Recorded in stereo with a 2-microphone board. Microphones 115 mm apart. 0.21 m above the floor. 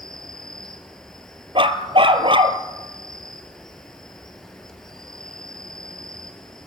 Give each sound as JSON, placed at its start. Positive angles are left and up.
{"t": 0.0, "sound": "an insect", "side_deg": 5, "distance_m": 2.0}
{"t": 1.6, "sound": "a dog barking", "side_deg": -50, "distance_m": 1.2}